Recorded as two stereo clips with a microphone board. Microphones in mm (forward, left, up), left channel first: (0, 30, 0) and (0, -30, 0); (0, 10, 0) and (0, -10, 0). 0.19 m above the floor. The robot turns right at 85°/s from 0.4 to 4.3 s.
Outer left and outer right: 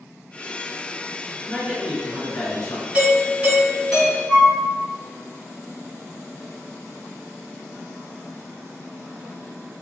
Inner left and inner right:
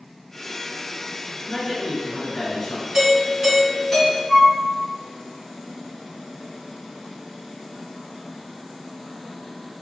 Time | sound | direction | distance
1.5 | a man speaking | 50° right | 1.2 m
2.9 | a doorbell | 75° right | 1.8 m
4.3 | a flute | 20° left (ahead or behind) | 1.6 m